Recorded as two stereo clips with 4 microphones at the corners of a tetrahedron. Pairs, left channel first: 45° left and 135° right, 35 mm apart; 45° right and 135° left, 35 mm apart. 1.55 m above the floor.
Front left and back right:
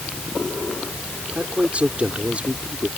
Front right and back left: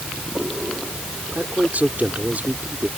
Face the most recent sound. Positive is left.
turn(degrees=170)